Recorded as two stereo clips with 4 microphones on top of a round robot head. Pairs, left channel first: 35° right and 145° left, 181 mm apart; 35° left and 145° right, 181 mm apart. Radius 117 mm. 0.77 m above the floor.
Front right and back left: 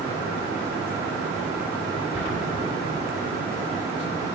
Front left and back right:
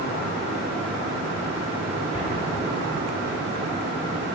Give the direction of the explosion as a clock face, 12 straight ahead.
8 o'clock.